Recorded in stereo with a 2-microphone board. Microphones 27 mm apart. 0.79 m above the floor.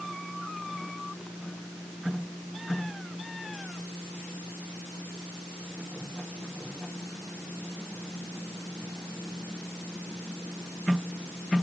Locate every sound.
Only background noise.